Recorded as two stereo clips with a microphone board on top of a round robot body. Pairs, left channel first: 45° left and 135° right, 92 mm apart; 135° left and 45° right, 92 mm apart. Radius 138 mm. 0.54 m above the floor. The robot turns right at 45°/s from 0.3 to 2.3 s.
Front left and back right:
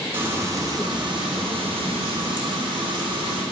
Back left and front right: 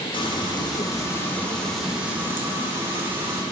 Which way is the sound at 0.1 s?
160° left.